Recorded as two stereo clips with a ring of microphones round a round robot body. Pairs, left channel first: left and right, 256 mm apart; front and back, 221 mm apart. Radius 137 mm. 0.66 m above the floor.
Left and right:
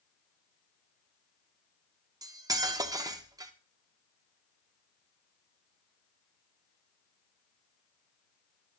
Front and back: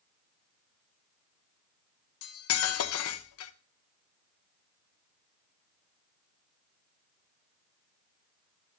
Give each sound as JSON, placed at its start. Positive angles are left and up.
{"t": 2.2, "sound": "cutlery clinking", "azimuth_deg": -15, "distance_m": 0.7}